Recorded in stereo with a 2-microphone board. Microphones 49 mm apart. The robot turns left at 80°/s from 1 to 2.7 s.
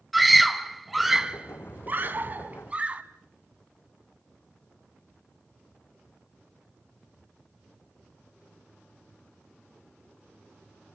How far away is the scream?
About 1.3 m.